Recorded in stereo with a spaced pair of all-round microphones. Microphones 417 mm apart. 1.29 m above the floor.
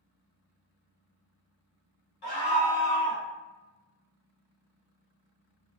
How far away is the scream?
About 1.1 m.